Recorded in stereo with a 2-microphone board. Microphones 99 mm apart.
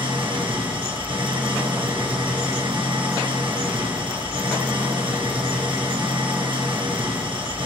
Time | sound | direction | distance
0.0 | an engine running | 60° right (ahead or behind) | 1.9 m